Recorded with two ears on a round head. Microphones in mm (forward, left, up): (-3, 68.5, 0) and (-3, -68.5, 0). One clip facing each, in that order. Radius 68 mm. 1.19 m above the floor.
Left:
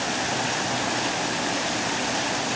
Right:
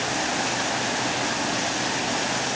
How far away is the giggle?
No giggle in this recording.